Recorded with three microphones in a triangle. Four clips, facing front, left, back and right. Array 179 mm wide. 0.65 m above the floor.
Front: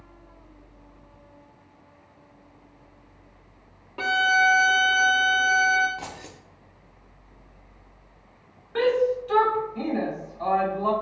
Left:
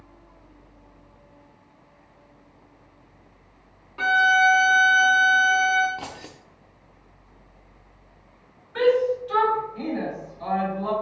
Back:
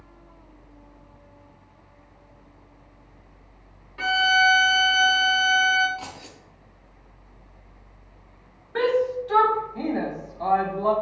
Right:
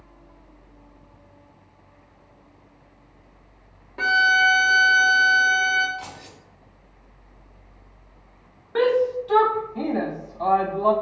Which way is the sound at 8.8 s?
95° right.